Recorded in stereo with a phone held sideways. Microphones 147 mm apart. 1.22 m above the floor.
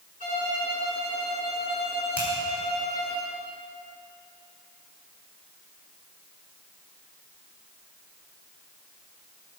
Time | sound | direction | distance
0.2 | a violin | 55° right (ahead or behind) | 4 m
2.2 | a finger snap | 10° right (ahead or behind) | 4.5 m